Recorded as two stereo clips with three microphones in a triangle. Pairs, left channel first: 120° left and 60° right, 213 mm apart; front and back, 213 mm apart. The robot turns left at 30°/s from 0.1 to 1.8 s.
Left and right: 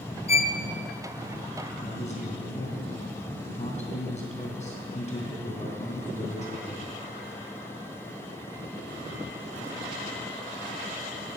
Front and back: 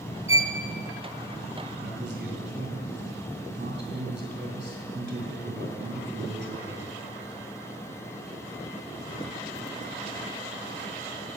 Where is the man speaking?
170° left, 2.5 m.